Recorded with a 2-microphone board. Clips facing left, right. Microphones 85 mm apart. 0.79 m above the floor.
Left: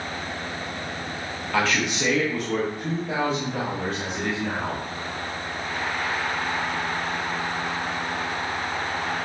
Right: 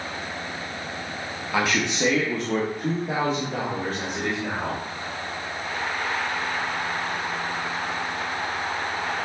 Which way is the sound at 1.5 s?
10° right (ahead or behind).